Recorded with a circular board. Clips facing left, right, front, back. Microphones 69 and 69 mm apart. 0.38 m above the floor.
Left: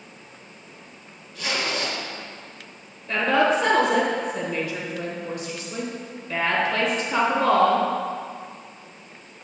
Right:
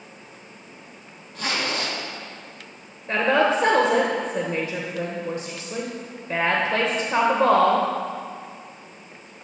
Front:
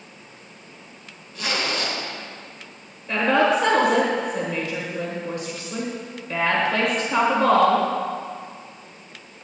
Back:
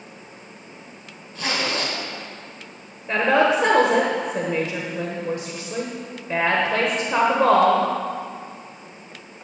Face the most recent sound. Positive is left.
turn(degrees=-130)